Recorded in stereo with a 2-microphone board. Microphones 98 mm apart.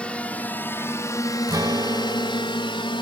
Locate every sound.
0.0 s a drone: 10° left (ahead or behind); by 3.0 s 55° left (ahead or behind)
1.5 s a guitar: 40° right (ahead or behind)